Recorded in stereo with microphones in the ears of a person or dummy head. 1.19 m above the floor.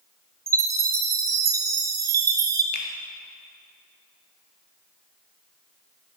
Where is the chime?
20° right (ahead or behind), 1.3 m.